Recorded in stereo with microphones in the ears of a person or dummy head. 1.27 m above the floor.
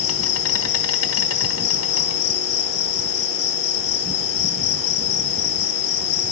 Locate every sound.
0.0 s an insect: 80° left, 1.3 m